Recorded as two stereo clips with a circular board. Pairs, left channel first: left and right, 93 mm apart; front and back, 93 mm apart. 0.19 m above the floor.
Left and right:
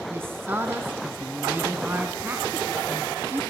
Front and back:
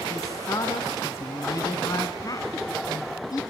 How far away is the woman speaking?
About 2 m.